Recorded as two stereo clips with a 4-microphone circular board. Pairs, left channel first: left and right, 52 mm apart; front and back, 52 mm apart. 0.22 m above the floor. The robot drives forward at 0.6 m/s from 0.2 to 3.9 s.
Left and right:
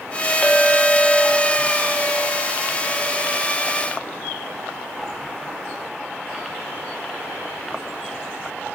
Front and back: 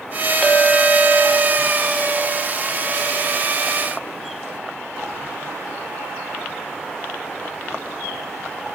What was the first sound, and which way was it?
A clink, 50° left.